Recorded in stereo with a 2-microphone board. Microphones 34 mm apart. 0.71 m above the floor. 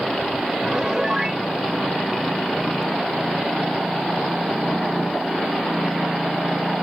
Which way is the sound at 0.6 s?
20° right (ahead or behind).